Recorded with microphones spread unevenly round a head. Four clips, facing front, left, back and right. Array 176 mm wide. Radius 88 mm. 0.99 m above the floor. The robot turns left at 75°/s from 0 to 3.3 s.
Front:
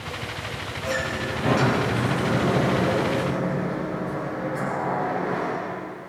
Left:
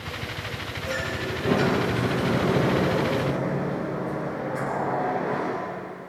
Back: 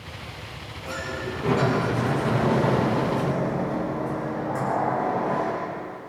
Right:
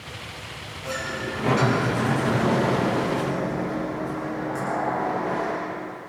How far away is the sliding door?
About 9 m.